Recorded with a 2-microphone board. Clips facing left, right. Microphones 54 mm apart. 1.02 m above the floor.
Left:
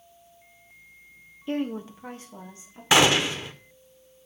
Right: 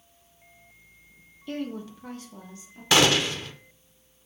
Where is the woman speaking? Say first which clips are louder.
Left 4 dB; 25° left (ahead or behind), 0.5 m.